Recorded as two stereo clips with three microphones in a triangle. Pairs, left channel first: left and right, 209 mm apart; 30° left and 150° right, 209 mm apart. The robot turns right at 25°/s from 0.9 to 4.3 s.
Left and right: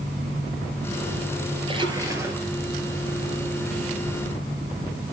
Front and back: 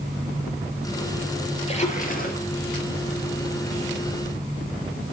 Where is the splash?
25° right, 3.5 m; by 2.4 s 10° right, 3.5 m.